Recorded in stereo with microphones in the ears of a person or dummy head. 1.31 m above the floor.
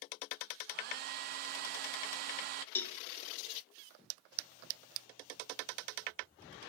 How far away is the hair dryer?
About 0.5 m.